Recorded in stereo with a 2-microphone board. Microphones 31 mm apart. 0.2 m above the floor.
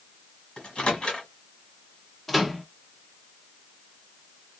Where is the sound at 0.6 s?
30° left (ahead or behind), 1.6 m.